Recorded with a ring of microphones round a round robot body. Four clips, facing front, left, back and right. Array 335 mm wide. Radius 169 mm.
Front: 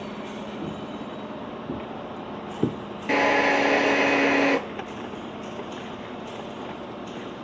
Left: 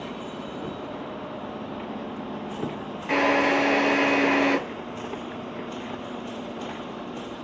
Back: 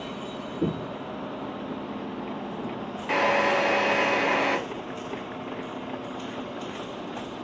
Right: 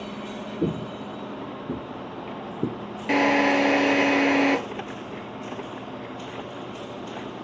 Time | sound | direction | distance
0.6 | footsteps | 120° right | 0.7 m
3.1 | a drill | 45° right | 3 m